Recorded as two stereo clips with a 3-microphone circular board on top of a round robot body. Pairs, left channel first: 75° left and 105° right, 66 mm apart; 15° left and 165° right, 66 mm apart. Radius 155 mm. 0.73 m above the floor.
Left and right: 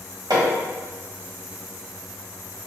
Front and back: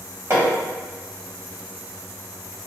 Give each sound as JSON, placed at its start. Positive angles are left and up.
{"t": 0.3, "sound": "hammering", "azimuth_deg": -115, "distance_m": 1.5}